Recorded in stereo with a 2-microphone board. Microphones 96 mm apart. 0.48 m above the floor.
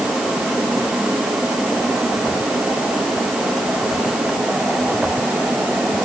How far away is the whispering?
No whispering in this recording.